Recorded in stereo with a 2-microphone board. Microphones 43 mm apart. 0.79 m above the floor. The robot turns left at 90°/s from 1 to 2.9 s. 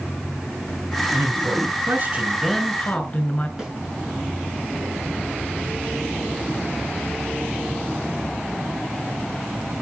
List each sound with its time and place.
1.1 s a man speaking: 50° right, 5 m; by 3.5 s 150° left, 5 m
3.6 s a snare drum: 15° right (ahead or behind), 9 m